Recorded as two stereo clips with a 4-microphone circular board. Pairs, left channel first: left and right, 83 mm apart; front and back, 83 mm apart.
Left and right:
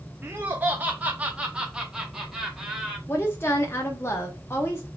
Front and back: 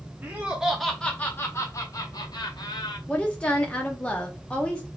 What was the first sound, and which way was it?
Laughter, 135° right.